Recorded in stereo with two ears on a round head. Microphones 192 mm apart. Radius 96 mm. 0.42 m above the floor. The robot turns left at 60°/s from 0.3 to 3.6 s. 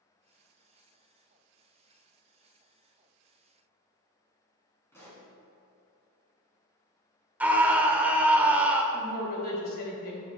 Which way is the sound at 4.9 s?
10° left (ahead or behind).